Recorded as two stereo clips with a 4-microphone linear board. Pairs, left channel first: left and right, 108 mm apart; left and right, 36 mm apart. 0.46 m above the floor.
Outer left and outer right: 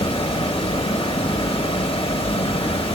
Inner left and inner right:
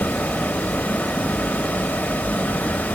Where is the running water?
60° left (ahead or behind), 0.8 m.